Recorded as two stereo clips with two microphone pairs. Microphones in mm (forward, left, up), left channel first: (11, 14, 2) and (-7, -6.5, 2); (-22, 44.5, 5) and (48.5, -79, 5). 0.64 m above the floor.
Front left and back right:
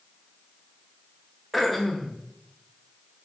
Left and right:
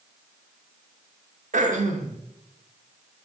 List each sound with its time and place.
1.5 s throat clearing: 35° right, 0.5 m